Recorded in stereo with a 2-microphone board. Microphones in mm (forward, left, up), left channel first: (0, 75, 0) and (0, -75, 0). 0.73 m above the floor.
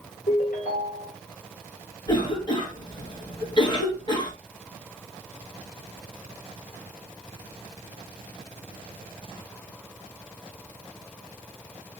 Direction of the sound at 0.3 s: 60° left (ahead or behind).